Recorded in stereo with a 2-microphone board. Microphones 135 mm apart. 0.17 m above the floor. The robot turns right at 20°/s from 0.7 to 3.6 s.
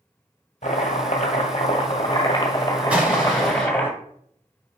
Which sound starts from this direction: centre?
An explosion, at 2.9 s.